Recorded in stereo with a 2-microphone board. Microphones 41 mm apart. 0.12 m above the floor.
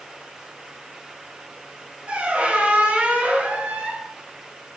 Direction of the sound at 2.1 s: 30° right (ahead or behind).